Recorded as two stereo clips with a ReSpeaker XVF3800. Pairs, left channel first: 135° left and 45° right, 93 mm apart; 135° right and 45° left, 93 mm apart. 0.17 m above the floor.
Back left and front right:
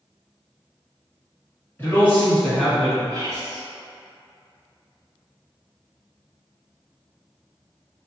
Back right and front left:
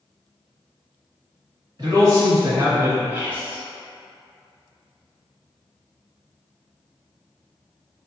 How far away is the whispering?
About 1.3 m.